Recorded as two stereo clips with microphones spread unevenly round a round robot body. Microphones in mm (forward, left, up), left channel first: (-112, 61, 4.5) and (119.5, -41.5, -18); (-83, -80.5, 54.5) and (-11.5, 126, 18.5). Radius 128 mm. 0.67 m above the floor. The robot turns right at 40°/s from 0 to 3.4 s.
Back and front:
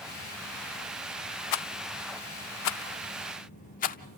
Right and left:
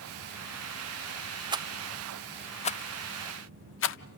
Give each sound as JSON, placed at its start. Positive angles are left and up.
{"t": 1.5, "sound": "a rattle", "azimuth_deg": 140, "distance_m": 0.5}